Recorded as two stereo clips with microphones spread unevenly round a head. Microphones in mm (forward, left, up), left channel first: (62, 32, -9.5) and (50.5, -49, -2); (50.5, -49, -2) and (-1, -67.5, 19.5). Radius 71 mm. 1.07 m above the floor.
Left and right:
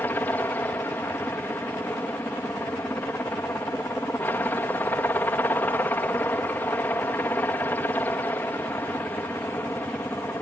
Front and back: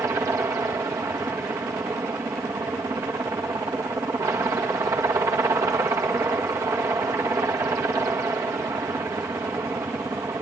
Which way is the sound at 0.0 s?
150° left.